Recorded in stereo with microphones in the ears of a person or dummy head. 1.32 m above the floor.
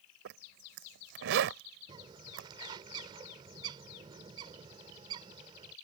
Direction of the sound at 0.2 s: 65° right (ahead or behind).